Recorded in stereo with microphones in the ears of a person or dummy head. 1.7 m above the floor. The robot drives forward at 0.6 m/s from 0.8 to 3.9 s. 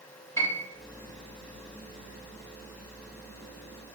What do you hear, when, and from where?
0.4 s a piano: 10° left (ahead or behind), 0.8 m